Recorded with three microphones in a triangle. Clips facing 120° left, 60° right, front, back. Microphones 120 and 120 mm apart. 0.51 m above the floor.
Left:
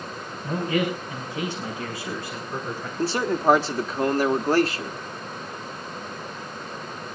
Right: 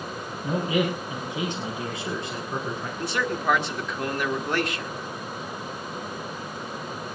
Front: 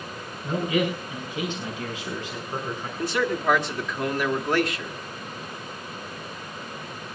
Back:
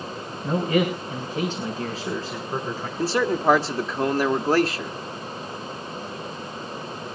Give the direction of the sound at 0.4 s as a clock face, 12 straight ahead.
5 o'clock.